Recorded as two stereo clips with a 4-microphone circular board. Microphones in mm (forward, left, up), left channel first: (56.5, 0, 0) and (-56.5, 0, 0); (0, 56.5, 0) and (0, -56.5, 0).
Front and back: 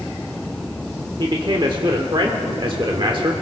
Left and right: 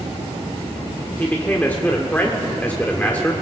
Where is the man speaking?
160° left, 1.0 m.